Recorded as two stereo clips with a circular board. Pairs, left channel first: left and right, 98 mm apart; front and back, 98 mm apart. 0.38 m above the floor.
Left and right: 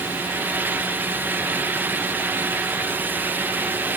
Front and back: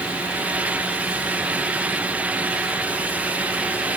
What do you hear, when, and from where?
Only background noise.